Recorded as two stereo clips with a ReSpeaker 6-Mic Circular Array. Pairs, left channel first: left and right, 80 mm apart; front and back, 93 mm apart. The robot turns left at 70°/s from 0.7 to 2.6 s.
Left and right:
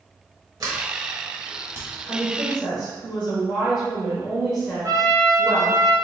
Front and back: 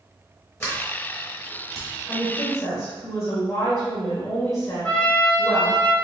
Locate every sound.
0.6 s a sliding door: 60° right, 1.3 m; by 1.9 s 140° right, 1.3 m
2.1 s a woman speaking: 20° left, 1.0 m; by 5.8 s 15° right, 1.0 m
4.8 s a trumpet: 70° right, 0.7 m